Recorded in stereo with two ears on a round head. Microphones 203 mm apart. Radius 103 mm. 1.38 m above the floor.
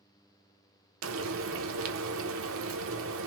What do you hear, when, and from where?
1.0 s frying: 65° right (ahead or behind), 0.7 m